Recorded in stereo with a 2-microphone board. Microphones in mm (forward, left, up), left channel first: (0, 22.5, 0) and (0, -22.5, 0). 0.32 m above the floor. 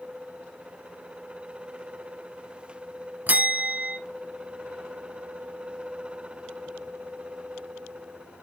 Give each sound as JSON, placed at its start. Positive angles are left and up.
{"t": 3.3, "sound": "a bell", "side_deg": -40, "distance_m": 0.7}